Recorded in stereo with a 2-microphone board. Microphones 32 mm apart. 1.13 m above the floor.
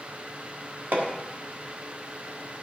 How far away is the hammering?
About 1.7 m.